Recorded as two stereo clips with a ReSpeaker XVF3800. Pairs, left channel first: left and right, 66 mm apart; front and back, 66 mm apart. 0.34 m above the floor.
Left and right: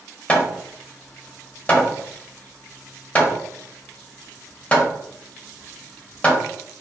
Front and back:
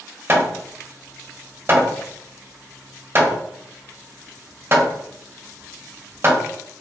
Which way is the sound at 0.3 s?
150° left.